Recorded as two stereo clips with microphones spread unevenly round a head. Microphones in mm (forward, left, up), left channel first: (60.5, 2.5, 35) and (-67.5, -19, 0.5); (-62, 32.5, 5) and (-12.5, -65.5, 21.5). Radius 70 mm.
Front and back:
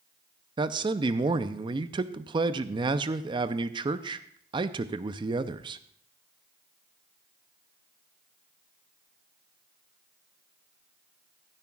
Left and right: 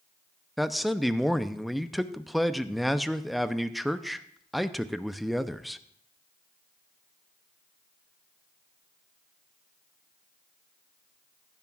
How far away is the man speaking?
About 0.6 m.